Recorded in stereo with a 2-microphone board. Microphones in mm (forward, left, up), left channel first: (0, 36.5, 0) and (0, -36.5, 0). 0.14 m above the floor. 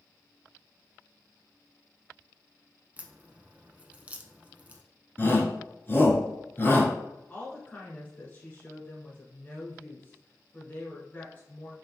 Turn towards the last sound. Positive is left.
turn(degrees=25)  # may be behind; listen again after turning